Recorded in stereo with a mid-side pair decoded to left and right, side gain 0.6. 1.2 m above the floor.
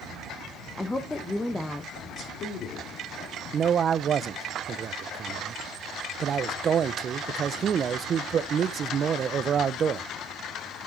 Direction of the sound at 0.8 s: 15° left.